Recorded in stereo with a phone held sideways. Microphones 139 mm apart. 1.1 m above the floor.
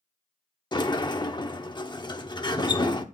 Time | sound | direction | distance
0.7 | a sliding door | 30° left (ahead or behind) | 0.7 m